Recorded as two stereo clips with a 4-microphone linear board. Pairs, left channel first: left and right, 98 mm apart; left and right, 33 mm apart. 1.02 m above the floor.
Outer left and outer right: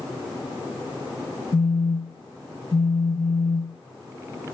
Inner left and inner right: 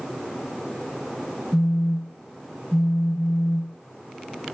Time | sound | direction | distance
1.5 | a phone buzzing | centre (ahead or behind) | 0.9 m